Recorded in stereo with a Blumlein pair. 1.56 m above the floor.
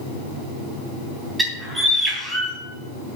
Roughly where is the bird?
Ahead.